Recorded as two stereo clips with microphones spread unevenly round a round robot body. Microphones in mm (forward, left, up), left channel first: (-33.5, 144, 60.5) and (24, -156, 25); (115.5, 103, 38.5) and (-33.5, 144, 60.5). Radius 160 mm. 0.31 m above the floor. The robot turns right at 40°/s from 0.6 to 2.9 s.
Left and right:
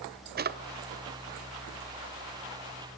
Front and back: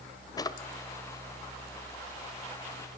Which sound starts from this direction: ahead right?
A drawer, at 0.4 s.